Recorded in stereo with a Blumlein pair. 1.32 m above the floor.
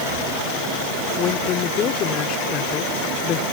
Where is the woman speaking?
30° left.